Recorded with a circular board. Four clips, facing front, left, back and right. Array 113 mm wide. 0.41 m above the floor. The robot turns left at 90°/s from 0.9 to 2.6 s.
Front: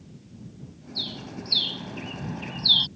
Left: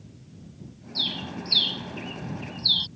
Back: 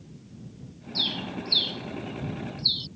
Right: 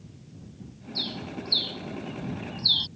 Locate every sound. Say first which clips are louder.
0.9 s a bird: left 1 dB, back 4 dB; 150° left; by 2.9 s straight ahead